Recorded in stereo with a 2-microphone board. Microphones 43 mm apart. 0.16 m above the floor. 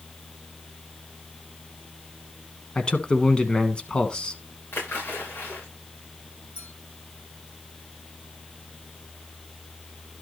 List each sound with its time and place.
2.8 s a man speaking: 20° left (ahead or behind), 1.1 m
4.7 s a splash: 60° left (ahead or behind), 7 m
6.5 s a clink: 60° left (ahead or behind), 8 m